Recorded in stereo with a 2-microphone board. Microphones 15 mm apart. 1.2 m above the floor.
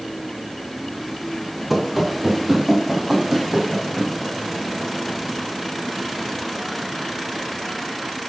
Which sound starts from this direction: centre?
Running footsteps, at 1.7 s.